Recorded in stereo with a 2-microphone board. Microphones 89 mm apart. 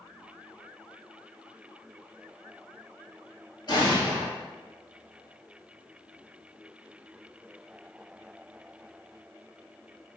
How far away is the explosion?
About 1.2 m.